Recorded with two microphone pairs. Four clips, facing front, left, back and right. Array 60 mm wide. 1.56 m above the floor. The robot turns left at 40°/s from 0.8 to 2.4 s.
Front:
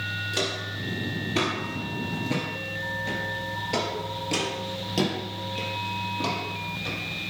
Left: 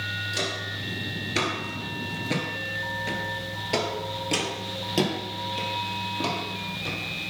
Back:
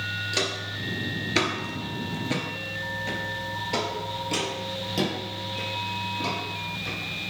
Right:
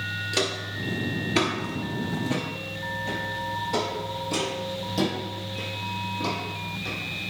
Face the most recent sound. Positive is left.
turn(degrees=65)